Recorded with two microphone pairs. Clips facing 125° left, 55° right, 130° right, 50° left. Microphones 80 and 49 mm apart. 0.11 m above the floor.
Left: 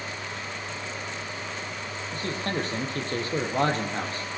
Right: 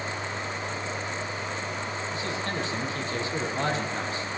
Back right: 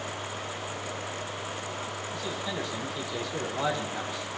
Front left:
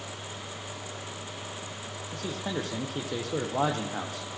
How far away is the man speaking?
About 4.5 m.